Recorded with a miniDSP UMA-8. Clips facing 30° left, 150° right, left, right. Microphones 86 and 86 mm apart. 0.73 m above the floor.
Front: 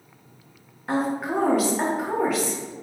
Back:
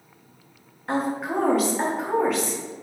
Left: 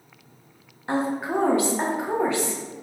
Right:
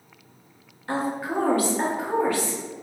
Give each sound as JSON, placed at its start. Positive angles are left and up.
{"t": 0.9, "sound": "a woman speaking", "azimuth_deg": 115, "distance_m": 0.5}